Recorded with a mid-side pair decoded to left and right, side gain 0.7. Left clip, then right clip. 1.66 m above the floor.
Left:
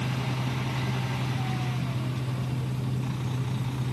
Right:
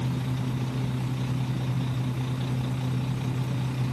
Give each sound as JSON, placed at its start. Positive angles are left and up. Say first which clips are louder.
{"t": 0.0, "sound": "a fan", "louder": "left 1 dB", "azimuth_deg": -35, "distance_m": 1.2}